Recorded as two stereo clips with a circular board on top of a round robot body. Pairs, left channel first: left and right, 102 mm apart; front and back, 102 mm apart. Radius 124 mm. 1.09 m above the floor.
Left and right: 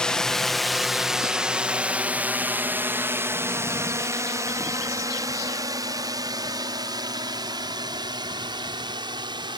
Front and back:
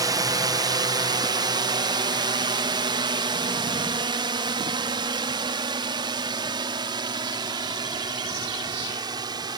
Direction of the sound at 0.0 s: 170° left.